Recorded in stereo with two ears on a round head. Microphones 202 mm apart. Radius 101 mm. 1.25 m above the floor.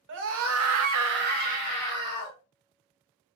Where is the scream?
55° right (ahead or behind), 0.8 m; by 2.4 s 15° right (ahead or behind), 1.2 m.